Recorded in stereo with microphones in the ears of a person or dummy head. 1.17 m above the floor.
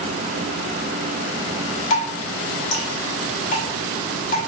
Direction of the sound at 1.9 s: 45° left (ahead or behind).